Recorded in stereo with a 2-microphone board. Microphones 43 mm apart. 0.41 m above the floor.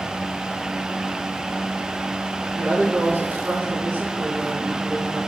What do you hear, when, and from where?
2.5 s a woman speaking: 70° right (ahead or behind), 5.5 m